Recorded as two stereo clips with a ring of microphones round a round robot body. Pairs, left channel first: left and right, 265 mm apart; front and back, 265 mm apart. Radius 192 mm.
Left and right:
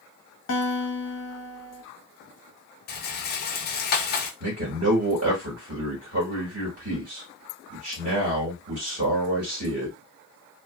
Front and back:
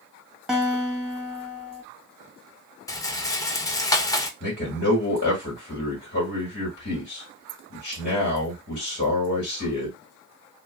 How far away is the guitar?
About 1.1 m.